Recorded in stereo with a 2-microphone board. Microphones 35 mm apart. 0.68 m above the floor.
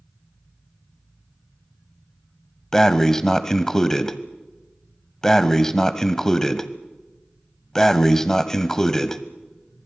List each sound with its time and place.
2.7 s breathing: 10° left (ahead or behind), 1.1 m